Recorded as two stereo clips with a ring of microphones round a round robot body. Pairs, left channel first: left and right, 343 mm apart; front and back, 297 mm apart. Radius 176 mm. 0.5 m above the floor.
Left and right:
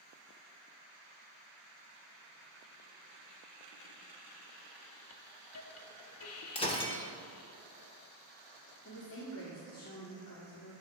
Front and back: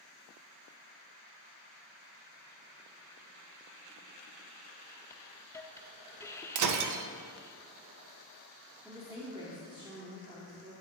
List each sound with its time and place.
5.1 s a hiss: 80° left, 0.5 m
6.5 s breaking glass: 165° left, 0.5 m
8.8 s a woman speaking: 110° left, 1.4 m